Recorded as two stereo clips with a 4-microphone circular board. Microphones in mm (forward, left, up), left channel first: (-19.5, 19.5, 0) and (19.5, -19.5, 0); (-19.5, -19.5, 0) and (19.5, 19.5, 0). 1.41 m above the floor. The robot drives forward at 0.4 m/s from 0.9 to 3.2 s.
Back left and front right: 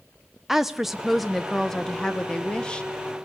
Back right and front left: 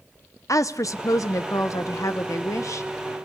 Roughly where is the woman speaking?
Behind right.